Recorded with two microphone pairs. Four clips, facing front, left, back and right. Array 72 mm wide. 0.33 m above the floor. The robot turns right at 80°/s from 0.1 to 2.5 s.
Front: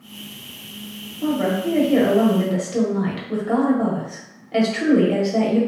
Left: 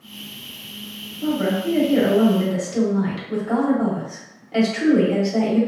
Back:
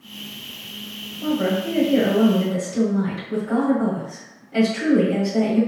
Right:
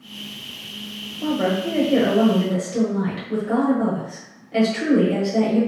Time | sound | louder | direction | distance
1.2 | a woman speaking | even, front 1 dB | 95° right | 1.2 m